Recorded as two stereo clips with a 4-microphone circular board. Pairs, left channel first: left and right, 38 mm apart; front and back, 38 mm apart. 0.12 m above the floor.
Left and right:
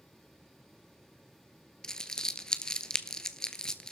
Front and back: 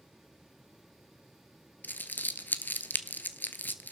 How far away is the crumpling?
About 0.7 m.